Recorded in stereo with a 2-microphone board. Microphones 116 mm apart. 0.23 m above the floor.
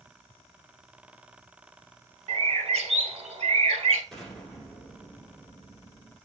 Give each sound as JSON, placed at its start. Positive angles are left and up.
{"t": 2.3, "sound": "a bird", "side_deg": -65, "distance_m": 0.6}
{"t": 4.1, "sound": "an explosion", "side_deg": 0, "distance_m": 1.6}